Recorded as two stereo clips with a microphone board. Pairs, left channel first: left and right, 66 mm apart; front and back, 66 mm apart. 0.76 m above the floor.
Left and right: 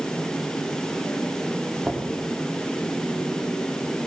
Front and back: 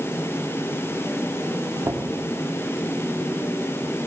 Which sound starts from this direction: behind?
Knocking, at 1.8 s.